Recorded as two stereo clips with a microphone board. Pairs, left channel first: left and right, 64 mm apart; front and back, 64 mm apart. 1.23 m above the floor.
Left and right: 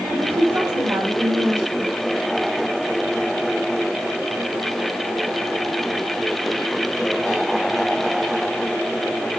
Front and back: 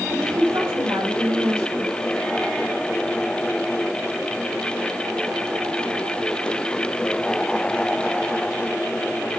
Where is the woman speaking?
140° right, 4.5 m; by 1.9 s 120° right, 5 m.